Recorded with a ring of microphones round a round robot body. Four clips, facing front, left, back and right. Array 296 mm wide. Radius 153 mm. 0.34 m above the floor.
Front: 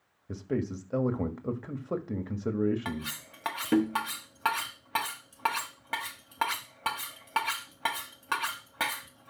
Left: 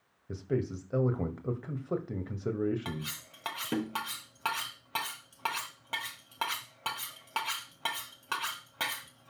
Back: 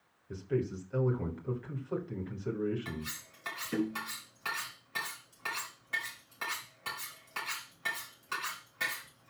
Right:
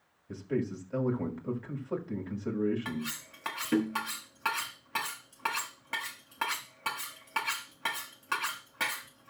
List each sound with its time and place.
0.3 s a man speaking: 25° left, 1.9 m
2.9 s cutlery clinking: 10° left, 1.4 m